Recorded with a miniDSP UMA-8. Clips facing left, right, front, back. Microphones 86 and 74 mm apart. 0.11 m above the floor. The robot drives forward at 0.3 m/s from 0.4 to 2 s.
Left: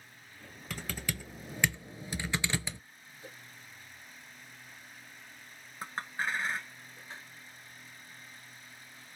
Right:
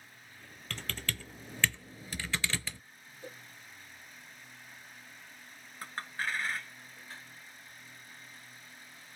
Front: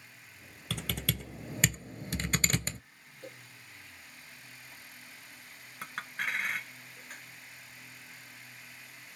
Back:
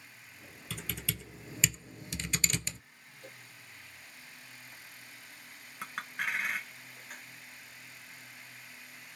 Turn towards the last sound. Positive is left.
turn(degrees=90)